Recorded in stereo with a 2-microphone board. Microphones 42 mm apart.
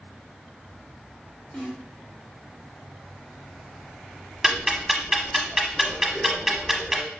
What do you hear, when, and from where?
1.5 s a snare drum: 30° left (ahead or behind), 2.0 m
4.4 s ticking: 10° right (ahead or behind), 0.9 m